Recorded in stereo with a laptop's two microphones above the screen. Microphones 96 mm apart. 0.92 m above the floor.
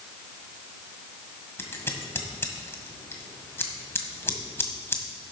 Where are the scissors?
25° left (ahead or behind), 1.7 m.